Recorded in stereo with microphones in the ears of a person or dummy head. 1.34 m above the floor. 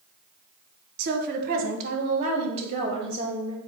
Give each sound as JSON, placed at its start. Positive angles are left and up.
{"t": 1.0, "sound": "a woman speaking", "side_deg": -60, "distance_m": 1.3}